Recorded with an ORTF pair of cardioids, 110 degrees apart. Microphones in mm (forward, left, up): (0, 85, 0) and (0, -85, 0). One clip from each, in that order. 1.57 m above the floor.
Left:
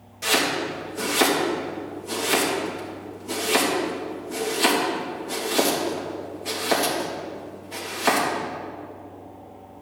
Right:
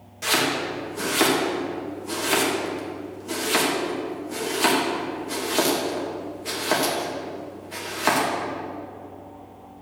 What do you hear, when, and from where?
0.2 s chopping: 5° right, 3 m